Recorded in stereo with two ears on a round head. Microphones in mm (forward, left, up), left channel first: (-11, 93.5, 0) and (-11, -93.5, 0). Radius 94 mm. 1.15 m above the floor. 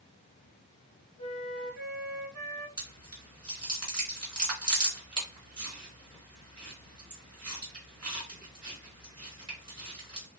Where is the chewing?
25° right (ahead or behind), 1.4 m.